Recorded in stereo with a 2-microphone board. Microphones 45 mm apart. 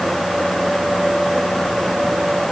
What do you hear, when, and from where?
Only background noise.